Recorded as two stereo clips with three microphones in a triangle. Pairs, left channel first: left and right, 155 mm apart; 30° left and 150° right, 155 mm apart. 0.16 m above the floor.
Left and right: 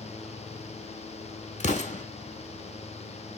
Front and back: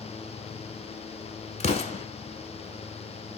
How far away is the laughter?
No laughter in this recording.